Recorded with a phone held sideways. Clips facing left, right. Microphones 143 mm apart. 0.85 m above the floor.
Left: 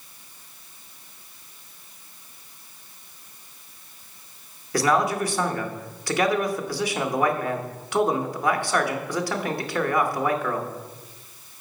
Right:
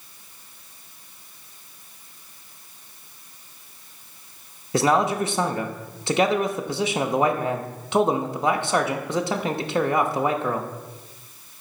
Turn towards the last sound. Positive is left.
turn(degrees=-25)  # may be behind; listen again after turning